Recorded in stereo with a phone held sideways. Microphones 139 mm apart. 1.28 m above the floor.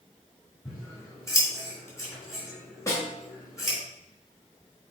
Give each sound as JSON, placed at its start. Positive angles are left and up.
{"t": 0.7, "sound": "scissors", "side_deg": 20, "distance_m": 3.5}
{"t": 2.9, "sound": "a snare drum", "side_deg": 25, "distance_m": 2.5}